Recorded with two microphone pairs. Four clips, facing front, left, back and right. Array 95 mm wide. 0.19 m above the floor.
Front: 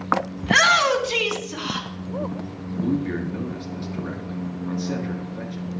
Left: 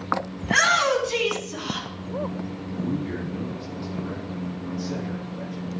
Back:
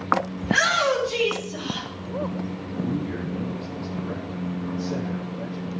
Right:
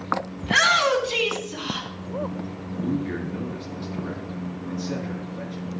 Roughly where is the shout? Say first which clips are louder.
Right 1 dB, front 4 dB; ahead.